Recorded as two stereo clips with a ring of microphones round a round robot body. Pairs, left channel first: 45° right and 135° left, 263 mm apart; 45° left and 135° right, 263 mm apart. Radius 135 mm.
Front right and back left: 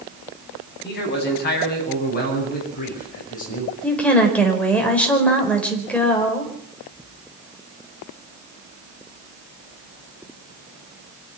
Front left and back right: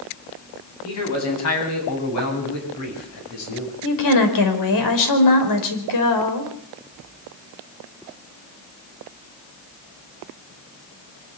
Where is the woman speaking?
40° left, 4.5 m.